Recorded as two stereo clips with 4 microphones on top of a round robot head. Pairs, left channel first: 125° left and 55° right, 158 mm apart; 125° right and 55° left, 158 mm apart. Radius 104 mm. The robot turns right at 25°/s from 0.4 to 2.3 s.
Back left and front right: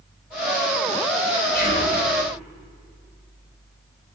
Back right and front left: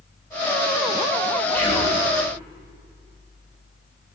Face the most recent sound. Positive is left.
turn(degrees=170)